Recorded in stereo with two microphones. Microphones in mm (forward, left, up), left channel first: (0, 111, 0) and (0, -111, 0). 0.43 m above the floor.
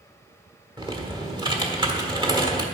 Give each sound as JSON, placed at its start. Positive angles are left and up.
{"t": 0.8, "sound": "typing on a keyboard", "side_deg": -20, "distance_m": 1.3}